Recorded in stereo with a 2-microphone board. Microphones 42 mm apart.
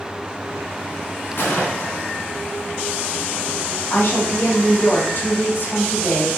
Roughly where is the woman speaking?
Left.